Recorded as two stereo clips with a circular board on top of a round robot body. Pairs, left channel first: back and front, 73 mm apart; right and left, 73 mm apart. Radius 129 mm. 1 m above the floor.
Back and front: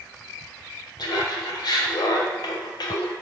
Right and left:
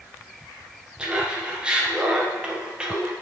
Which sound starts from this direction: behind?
Laughter, at 1.0 s.